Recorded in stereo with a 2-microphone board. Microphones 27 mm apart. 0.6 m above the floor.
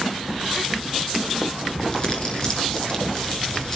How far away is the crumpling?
About 9 m.